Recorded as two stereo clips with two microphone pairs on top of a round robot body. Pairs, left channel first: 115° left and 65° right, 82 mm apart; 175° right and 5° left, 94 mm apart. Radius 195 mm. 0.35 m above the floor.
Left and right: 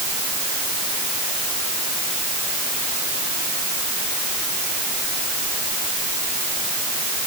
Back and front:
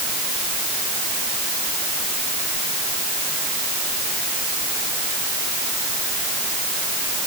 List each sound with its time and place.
Only background noise.